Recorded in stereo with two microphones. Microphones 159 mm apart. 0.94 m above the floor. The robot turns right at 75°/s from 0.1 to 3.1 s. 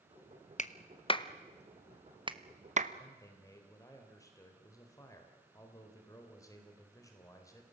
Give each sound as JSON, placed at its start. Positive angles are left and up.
{"t": 0.6, "sound": "a clap", "side_deg": 50, "distance_m": 0.9}
{"t": 3.0, "sound": "a man speaking", "side_deg": 30, "distance_m": 3.5}